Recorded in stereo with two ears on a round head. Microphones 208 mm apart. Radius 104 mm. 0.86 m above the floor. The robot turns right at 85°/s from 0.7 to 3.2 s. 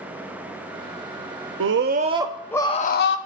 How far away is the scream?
About 1.0 m.